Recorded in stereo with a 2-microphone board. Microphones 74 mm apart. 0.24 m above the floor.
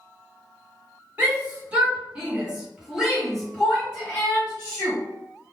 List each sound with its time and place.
1.2 s a shout: 25° right (ahead or behind), 1.6 m; by 5.0 s 20° left (ahead or behind), 1.6 m